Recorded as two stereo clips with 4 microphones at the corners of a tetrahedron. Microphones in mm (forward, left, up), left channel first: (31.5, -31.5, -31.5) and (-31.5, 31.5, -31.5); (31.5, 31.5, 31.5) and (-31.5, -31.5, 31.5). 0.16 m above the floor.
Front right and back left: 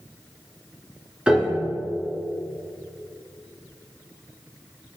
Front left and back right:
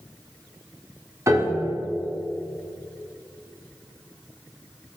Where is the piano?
150° right, 1.5 m.